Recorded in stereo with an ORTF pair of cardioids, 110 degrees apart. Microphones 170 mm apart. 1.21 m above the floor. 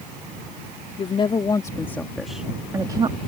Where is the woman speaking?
35° left; by 3.2 s 30° right.